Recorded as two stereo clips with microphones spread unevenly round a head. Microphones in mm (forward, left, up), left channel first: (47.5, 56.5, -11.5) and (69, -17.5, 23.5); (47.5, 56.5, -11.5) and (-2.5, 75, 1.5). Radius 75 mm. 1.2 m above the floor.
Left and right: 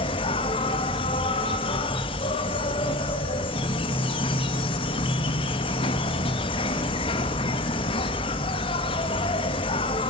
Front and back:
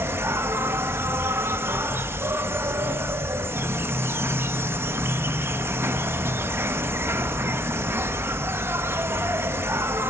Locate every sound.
0.0 s an insect: 115° left, 1.2 m